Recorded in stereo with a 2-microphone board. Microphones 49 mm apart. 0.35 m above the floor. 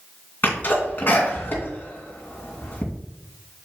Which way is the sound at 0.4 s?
40° left (ahead or behind).